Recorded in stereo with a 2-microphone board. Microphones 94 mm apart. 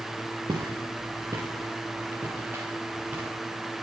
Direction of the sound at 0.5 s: 40° right (ahead or behind).